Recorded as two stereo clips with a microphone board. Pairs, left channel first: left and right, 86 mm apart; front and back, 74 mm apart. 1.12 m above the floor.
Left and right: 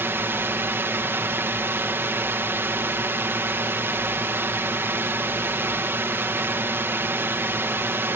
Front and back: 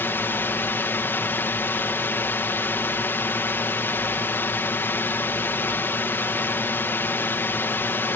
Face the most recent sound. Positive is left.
turn(degrees=-40)